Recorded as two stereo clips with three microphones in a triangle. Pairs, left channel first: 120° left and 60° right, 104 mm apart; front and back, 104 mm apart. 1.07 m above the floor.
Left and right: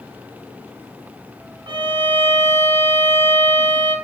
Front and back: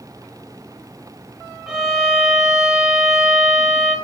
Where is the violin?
100° right, 3.5 m.